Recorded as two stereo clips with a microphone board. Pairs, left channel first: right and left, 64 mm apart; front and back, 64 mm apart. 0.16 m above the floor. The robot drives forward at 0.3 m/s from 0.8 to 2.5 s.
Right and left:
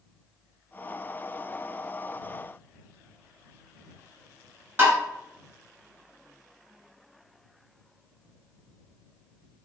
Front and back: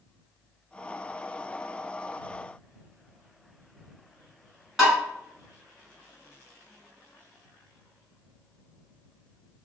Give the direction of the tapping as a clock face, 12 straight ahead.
8 o'clock.